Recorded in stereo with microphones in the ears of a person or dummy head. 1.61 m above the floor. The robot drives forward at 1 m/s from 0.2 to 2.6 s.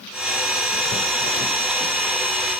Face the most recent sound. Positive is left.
No sound to turn to.